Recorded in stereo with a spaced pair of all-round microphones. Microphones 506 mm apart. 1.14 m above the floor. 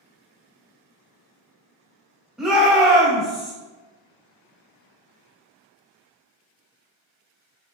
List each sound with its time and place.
2.4 s a shout: centre (ahead or behind), 1.5 m